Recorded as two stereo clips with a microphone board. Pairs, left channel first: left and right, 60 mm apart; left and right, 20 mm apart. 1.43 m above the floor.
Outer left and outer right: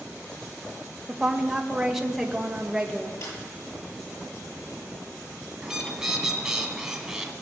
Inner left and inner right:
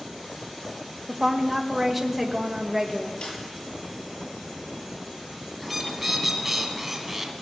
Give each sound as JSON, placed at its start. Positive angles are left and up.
{"t": 1.1, "sound": "a woman speaking", "side_deg": -5, "distance_m": 1.7}
{"t": 3.2, "sound": "a snare drum", "side_deg": 65, "distance_m": 9.5}
{"t": 5.6, "sound": "a bird", "side_deg": -10, "distance_m": 1.7}